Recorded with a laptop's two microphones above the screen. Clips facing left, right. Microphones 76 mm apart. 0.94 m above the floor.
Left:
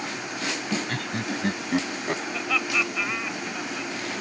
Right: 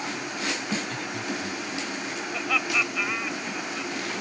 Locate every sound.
0.9 s laughter: 60° left (ahead or behind); by 2.2 s 65° left (ahead or behind)
2.3 s laughter: 5° right (ahead or behind)